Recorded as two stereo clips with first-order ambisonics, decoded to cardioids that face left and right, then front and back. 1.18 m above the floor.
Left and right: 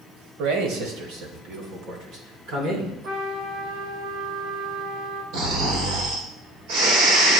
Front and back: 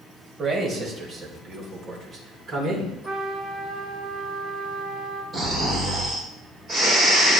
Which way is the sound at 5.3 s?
110° right.